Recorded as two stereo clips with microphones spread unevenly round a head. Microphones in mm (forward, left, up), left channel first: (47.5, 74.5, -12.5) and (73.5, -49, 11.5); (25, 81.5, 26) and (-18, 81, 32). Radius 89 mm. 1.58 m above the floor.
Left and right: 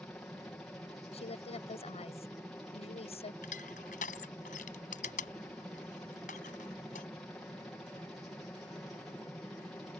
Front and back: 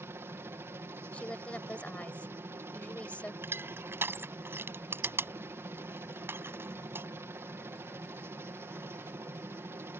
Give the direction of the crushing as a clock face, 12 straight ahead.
7 o'clock.